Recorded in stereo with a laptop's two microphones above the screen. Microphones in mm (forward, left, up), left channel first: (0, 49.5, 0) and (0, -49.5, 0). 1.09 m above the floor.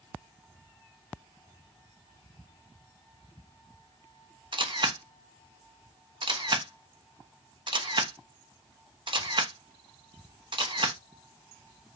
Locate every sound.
4.5 s a camera shutter: 50° right (ahead or behind), 1.0 m